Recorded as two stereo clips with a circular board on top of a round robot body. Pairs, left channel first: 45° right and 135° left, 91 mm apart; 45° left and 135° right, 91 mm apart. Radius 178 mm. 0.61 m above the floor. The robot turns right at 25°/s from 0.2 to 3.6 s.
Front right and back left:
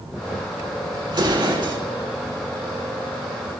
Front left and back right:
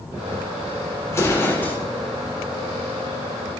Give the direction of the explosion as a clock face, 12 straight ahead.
9 o'clock.